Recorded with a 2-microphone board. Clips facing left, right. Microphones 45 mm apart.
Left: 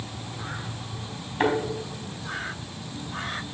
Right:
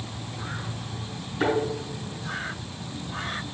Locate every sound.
1.4 s a thud: 55° left (ahead or behind), 3.5 m